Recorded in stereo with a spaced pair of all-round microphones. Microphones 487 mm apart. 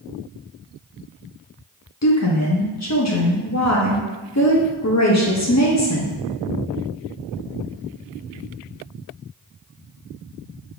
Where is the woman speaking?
35° left (ahead or behind), 0.6 m.